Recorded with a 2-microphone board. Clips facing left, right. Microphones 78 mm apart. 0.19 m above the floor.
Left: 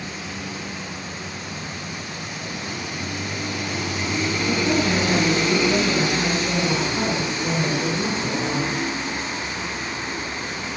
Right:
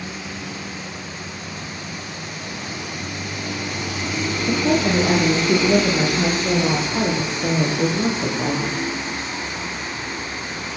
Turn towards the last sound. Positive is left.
turn(degrees=-75)  # may be behind; listen again after turning